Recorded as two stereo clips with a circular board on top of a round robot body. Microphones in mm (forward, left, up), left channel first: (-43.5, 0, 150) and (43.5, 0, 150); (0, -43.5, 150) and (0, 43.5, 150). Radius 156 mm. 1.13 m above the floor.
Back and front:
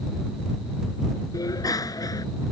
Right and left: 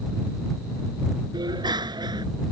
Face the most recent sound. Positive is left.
turn(degrees=130)